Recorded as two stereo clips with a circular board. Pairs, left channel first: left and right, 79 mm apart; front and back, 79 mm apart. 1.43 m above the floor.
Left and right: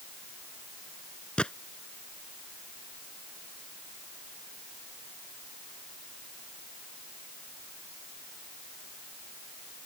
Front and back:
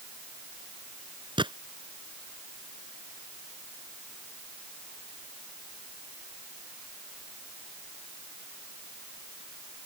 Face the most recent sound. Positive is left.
turn(degrees=170)